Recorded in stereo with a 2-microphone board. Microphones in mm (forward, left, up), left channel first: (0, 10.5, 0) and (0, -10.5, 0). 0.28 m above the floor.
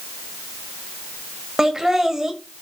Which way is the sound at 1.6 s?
20° right (ahead or behind).